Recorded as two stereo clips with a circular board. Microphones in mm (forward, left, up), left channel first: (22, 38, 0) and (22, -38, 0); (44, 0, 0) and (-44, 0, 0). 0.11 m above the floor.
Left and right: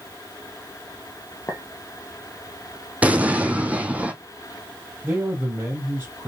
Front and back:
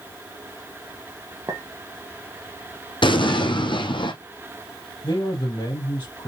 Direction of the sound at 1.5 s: 135° left.